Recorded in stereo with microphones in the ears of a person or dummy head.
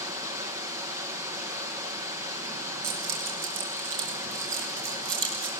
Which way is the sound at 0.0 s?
15° right (ahead or behind).